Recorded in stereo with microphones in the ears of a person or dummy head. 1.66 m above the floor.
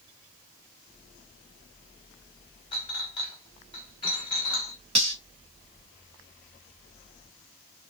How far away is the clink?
About 0.9 m.